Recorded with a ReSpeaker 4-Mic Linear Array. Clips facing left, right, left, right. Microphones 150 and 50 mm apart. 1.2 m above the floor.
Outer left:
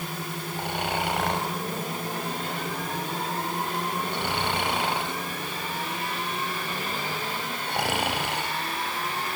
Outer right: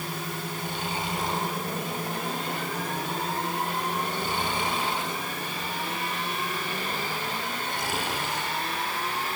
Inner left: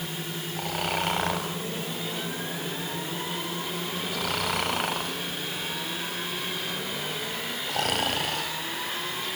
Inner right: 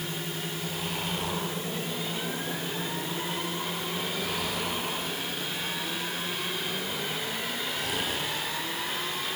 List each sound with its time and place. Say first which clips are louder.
0.6 s snoring: outer left 7 dB, inner left 5 dB; 70° left (ahead or behind), 5.5 m